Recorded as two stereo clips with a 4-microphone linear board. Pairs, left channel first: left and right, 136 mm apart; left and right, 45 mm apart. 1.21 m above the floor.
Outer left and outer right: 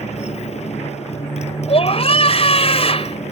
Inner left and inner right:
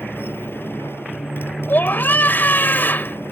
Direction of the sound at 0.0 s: 55° left (ahead or behind).